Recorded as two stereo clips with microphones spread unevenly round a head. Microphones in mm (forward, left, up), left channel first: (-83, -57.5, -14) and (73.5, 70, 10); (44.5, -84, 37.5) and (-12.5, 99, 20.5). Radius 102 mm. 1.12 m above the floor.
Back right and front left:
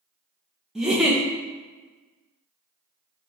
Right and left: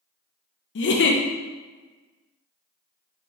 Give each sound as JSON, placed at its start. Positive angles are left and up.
{"t": 0.8, "sound": "a giggle", "azimuth_deg": -50, "distance_m": 0.5}